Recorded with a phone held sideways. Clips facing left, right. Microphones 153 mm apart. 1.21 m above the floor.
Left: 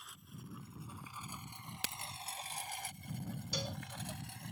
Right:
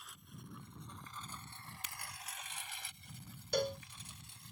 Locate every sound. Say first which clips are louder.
0.0 s a lawn mower: left 2 dB; centre (ahead or behind); by 4.5 s 65° left (ahead or behind)
1.6 s a crack: left 4 dB; 70° left (ahead or behind)
3.5 s a cowbell: right 10 dB; 50° right (ahead or behind)